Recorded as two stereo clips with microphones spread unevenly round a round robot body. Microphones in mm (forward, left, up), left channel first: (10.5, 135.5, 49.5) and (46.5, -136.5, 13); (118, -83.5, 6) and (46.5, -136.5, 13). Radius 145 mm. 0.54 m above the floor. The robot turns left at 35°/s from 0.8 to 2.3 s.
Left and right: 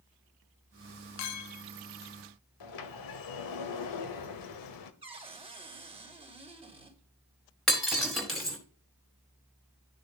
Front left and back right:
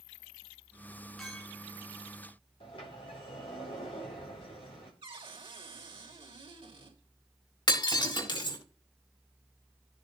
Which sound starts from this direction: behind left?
A clink, at 1.2 s.